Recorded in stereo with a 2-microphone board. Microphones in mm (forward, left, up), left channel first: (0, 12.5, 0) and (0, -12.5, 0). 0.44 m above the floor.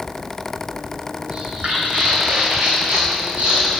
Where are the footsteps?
45° right (ahead or behind), 0.8 m; by 3.8 s 65° right (ahead or behind), 2.5 m.